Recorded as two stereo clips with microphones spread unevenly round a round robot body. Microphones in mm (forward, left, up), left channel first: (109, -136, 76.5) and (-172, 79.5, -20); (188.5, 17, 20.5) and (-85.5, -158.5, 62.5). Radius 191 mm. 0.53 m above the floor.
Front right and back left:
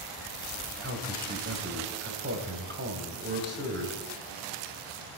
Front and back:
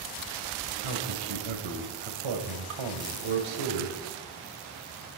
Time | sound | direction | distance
0.8 | a man speaking | 165° right | 2.5 m